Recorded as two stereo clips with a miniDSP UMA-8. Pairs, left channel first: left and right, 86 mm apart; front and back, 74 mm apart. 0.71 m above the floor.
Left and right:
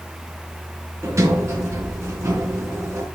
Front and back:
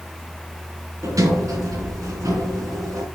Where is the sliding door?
145° right, 3 m.